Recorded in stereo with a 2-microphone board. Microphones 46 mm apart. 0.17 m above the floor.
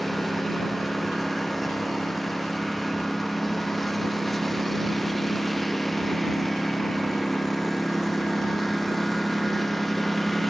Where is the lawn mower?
5° left (ahead or behind).